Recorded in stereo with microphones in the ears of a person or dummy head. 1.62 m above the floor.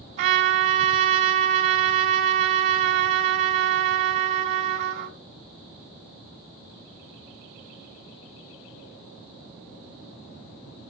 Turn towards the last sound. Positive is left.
turn(degrees=-40)  # may be behind; listen again after turning